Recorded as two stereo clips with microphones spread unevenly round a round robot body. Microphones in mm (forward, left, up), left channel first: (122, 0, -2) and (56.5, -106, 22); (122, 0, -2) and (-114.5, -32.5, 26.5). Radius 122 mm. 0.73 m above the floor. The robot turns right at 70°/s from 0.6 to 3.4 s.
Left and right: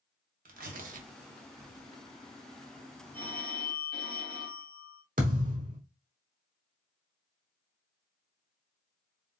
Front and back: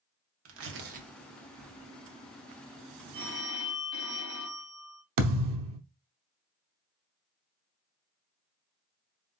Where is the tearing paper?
140° right, 0.9 m; by 1.9 s 50° right, 0.9 m.